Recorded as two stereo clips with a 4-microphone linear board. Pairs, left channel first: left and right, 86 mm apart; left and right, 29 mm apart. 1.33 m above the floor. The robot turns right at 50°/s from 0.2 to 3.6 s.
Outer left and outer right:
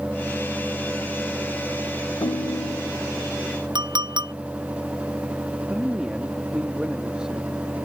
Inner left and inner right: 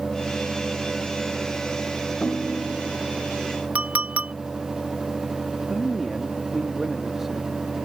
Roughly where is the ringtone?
Left.